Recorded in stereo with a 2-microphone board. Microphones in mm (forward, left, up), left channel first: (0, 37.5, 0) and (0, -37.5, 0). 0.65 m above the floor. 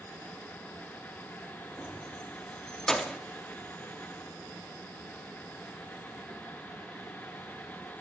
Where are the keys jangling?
5° left (ahead or behind), 0.9 m.